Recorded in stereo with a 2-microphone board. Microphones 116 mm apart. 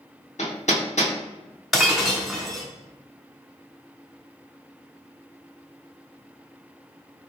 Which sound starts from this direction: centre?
Breaking glass, at 1.7 s.